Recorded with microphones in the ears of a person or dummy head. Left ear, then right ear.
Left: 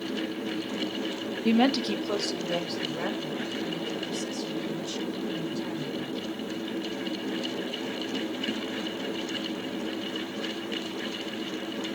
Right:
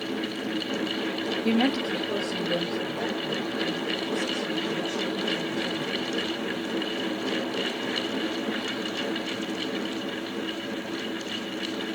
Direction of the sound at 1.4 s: Centre (ahead or behind).